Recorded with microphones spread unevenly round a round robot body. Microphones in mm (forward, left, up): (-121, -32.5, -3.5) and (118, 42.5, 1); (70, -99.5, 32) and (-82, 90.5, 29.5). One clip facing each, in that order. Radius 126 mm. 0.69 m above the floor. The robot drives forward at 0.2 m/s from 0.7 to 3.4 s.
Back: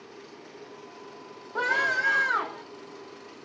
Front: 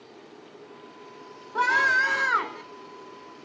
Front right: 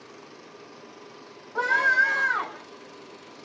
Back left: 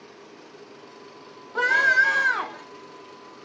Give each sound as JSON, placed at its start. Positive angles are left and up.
{"t": 1.6, "sound": "a scream", "azimuth_deg": 90, "distance_m": 2.0}